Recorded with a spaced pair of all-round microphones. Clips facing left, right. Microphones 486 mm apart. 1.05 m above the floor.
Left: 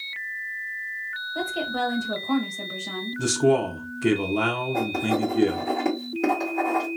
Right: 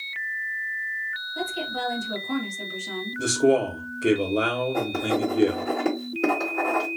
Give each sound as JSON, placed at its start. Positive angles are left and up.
{"t": 1.4, "sound": "a woman speaking", "side_deg": 70, "distance_m": 1.2}
{"t": 3.2, "sound": "a man speaking", "side_deg": 15, "distance_m": 0.7}
{"t": 4.7, "sound": "writing", "side_deg": 10, "distance_m": 1.6}